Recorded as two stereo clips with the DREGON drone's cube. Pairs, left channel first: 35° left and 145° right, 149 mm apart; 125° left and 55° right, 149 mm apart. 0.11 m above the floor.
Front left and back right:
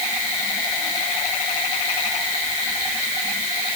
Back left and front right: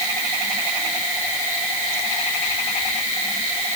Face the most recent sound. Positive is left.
No sound to turn to.